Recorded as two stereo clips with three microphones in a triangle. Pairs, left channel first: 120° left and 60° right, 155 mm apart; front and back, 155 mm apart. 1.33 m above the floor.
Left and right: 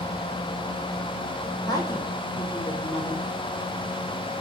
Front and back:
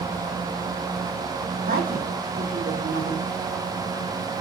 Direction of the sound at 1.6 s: 175° right.